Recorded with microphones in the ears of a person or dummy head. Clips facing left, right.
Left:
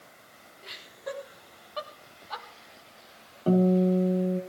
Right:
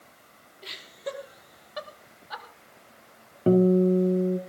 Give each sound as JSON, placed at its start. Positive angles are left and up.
{"t": 0.6, "sound": "laughter", "side_deg": -50, "distance_m": 3.5}
{"t": 3.5, "sound": "a guitar", "side_deg": -25, "distance_m": 2.0}